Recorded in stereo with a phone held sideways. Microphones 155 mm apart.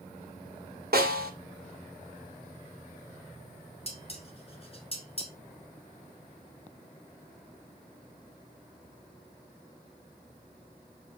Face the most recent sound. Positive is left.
turn(degrees=40)  # may be behind; listen again after turning